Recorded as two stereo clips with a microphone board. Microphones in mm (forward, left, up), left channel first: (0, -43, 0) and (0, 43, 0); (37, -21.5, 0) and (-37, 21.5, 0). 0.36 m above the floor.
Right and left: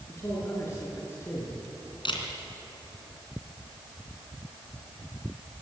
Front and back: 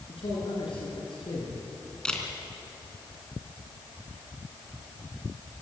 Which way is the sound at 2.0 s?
110° right.